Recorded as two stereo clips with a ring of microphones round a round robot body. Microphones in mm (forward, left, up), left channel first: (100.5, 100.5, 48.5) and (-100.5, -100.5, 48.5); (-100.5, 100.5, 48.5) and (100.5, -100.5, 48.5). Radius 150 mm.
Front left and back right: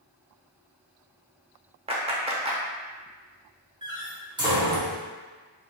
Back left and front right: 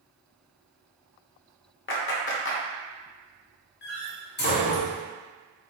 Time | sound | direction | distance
1.9 | a clap | 165° left | 0.7 m
3.8 | a door slam | 160° left | 1.0 m